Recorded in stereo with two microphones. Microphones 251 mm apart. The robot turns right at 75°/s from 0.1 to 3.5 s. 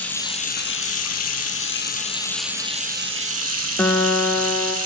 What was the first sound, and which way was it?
Running water, 5° left.